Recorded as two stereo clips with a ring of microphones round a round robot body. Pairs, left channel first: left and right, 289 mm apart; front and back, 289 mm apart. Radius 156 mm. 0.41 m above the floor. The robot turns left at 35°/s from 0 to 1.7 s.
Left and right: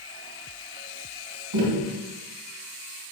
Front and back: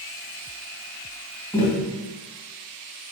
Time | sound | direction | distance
1.5 | tapping | 80° right | 2.5 m